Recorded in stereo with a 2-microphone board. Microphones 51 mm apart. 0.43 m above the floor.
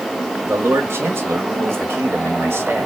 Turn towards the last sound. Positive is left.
turn(degrees=-55)  # may be behind; listen again after turning